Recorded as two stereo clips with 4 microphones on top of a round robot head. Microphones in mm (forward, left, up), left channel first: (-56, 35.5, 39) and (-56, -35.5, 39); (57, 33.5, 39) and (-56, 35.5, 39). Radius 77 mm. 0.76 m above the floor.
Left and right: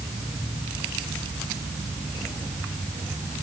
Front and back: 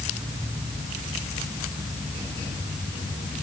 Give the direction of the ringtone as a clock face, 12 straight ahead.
I don't hear a ringtone.